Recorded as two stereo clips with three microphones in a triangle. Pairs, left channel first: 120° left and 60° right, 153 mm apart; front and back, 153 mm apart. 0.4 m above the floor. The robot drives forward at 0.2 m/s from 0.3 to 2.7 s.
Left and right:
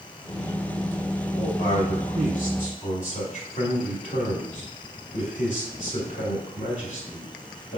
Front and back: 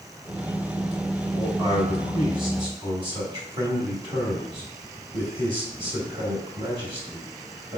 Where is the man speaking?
120° left, 1.3 m; by 7.8 s 130° left, 1.4 m.